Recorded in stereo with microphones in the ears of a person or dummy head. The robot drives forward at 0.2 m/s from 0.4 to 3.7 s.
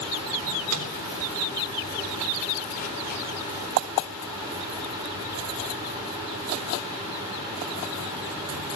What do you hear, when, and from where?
0.4 s a microwave: 80° right, 3.5 m